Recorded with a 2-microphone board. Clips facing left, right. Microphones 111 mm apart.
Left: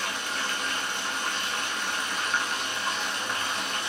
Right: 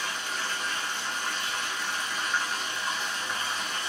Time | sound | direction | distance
0.0 | running water | 75° left (ahead or behind) | 0.9 m